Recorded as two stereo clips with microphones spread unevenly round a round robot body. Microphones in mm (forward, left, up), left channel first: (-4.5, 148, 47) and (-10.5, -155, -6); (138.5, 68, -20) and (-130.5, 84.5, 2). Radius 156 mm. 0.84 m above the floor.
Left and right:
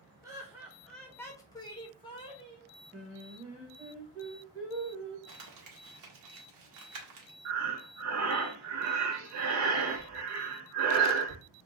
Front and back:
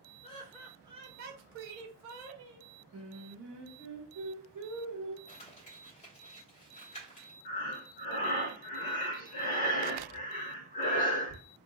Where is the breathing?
60° right, 0.7 m.